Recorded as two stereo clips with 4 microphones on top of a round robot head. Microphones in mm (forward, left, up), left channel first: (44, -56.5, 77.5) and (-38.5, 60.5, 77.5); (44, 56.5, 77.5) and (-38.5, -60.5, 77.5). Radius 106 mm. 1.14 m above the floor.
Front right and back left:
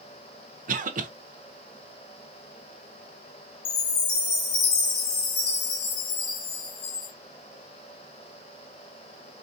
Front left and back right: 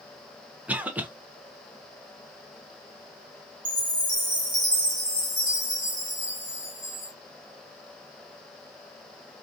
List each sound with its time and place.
0.7 s a cough: 155° left, 1.0 m
3.6 s a chime: 30° right, 2 m